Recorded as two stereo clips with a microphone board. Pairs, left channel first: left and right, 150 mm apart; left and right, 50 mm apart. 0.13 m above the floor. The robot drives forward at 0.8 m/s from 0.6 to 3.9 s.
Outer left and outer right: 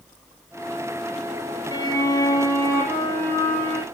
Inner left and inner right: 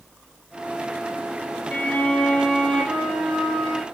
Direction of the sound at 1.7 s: 30° left (ahead or behind).